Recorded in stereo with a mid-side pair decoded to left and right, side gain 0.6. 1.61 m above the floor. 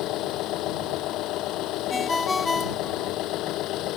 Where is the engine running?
65° left.